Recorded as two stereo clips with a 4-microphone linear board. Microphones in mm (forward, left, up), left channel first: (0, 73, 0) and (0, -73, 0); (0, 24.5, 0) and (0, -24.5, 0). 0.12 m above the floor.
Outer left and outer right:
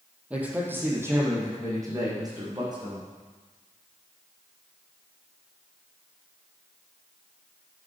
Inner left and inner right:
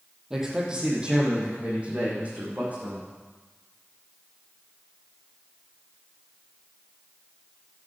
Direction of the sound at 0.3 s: 10° right (ahead or behind).